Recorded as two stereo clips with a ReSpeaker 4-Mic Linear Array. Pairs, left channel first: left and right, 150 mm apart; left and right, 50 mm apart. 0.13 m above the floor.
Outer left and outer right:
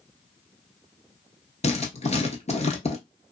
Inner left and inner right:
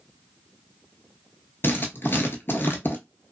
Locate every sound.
1.6 s writing: 50° left (ahead or behind), 0.9 m